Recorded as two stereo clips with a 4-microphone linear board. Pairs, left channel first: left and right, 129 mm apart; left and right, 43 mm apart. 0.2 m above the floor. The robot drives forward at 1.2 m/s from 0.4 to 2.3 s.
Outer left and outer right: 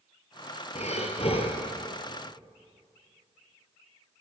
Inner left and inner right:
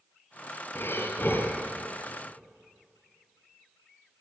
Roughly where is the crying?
I don't hear crying.